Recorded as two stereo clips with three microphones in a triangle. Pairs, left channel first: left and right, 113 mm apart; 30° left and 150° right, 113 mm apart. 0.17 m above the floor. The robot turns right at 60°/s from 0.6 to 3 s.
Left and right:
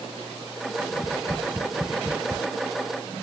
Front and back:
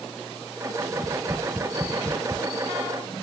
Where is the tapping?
145° left, 1.4 m; by 2.4 s 125° right, 1.4 m.